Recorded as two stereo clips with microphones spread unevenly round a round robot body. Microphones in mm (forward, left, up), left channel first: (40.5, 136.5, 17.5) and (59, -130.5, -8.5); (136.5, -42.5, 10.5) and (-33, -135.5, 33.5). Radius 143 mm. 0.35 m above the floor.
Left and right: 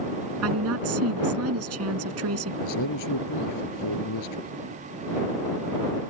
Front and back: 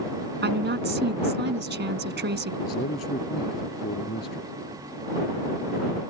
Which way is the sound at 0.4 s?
125° right.